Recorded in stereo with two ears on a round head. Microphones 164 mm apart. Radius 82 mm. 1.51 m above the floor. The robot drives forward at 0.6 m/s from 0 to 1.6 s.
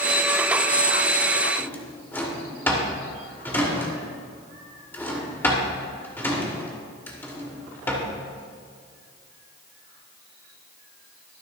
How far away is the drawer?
About 2 m.